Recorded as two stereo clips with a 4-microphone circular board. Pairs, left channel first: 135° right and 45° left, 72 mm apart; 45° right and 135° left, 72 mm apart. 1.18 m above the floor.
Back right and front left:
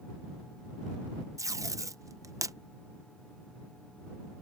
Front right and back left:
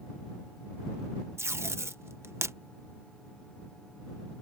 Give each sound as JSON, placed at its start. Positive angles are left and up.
{"t": 1.4, "sound": "tape being pulled", "azimuth_deg": 85}